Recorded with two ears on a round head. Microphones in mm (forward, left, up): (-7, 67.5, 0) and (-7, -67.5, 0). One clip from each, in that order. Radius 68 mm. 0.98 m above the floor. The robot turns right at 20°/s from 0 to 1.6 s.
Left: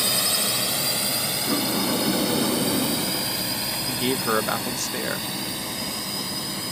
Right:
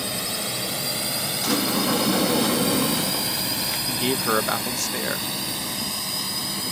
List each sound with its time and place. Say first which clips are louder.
0.0 s a drone: left 5 dB; 35° left (ahead or behind); by 6.7 s 15° right (ahead or behind)
1.4 s a sliding door: right 4 dB; 80° right
3.9 s a man speaking: even; 10° right (ahead or behind)